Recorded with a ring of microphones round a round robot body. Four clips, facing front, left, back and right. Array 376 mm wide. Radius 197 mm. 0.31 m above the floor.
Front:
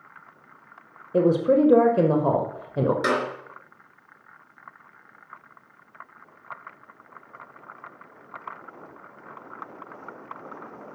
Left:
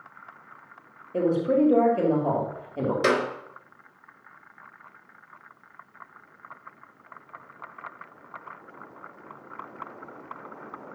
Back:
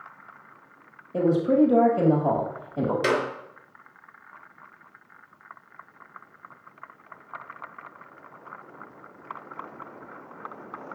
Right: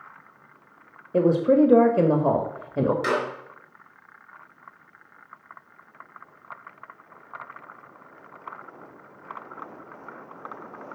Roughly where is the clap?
Left.